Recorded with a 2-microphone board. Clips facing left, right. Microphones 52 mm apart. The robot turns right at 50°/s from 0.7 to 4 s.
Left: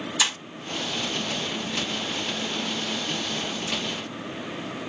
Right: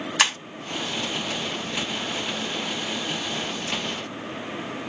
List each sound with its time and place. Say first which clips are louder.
0.2 s breaking glass: right 5 dB; 60° right (ahead or behind), 2 m